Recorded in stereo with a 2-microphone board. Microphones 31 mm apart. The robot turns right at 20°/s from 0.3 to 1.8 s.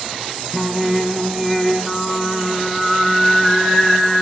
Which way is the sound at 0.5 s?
5° right (ahead or behind).